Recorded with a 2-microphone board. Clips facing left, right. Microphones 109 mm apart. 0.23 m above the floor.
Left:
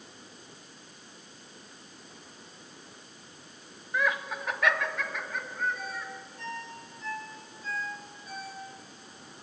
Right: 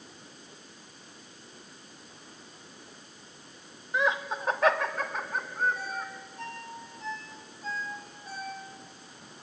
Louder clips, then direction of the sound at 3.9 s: Right 2 dB; 20° right (ahead or behind).